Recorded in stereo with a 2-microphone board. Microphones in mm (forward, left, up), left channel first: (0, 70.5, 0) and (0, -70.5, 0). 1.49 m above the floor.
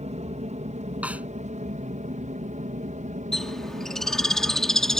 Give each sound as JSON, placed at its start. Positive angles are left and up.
{"t": 0.0, "sound": "an aircraft", "side_deg": -55}
{"t": 1.0, "sound": "a snare drum", "side_deg": -10}
{"t": 3.3, "sound": "a bird", "side_deg": 5}